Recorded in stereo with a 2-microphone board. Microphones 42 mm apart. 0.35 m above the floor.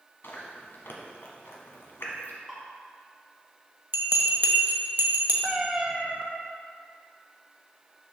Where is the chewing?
65° left (ahead or behind), 1.2 m.